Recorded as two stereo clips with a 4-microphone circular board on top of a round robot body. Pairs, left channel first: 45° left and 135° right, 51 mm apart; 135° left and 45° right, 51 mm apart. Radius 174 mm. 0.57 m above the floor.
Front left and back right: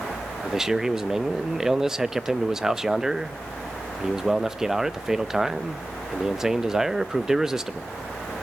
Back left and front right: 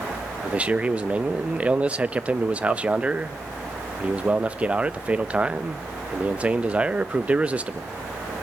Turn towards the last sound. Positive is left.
turn(degrees=-65)